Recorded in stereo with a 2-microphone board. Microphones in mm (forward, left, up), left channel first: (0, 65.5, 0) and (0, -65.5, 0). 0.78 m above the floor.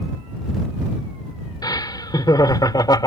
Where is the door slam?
No door slam in this recording.